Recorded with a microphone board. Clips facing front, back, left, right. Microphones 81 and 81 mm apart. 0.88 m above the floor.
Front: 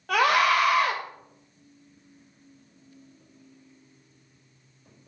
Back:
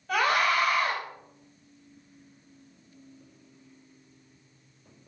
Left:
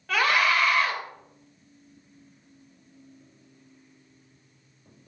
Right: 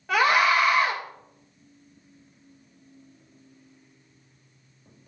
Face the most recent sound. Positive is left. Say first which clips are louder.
# front 4 dB, right 3 dB
turn(degrees=-15)